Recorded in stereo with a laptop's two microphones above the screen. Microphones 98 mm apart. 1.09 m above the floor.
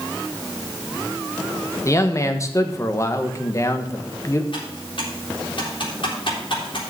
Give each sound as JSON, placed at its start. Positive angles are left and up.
{"t": 1.9, "sound": "a man speaking", "side_deg": 30, "distance_m": 1.2}
{"t": 4.5, "sound": "typing on a keyboard", "side_deg": 60, "distance_m": 3.5}